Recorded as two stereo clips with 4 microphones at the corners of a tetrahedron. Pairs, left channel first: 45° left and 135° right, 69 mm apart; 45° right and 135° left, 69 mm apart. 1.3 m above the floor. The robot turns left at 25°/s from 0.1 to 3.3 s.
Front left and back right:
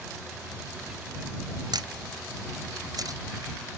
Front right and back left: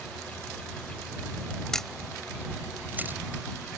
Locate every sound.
1.7 s a camera shutter: 130° right; by 3.2 s 165° right